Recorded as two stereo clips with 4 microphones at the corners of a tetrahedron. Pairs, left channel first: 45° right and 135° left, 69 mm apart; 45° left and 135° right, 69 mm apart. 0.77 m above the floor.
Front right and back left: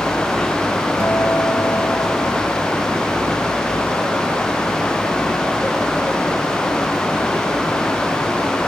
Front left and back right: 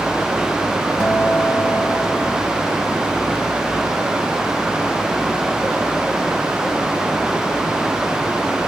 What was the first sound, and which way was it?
A guitar, 10° right.